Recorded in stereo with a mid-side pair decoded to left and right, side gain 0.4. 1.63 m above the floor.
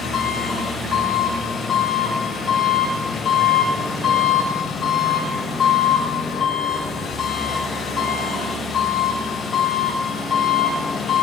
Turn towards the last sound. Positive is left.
turn(degrees=60)